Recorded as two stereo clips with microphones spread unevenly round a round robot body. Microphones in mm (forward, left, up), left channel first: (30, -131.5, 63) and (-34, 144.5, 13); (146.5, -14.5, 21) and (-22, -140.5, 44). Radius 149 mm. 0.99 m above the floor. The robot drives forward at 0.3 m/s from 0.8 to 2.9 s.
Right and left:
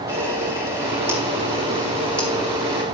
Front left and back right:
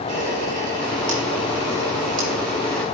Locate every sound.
0.1 s a camera shutter: 175° right, 2.5 m